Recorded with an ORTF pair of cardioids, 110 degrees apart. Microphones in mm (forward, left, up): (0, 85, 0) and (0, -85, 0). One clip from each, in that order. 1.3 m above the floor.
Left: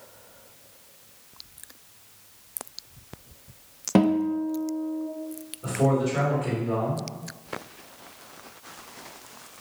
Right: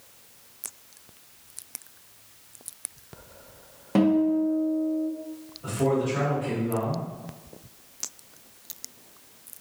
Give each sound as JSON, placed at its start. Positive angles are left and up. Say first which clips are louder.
{"t": 4.0, "sound": "a guitar", "louder": "right 1 dB", "azimuth_deg": 25, "distance_m": 0.5}
{"t": 5.6, "sound": "a man speaking", "louder": "left 1 dB", "azimuth_deg": 30, "distance_m": 1.7}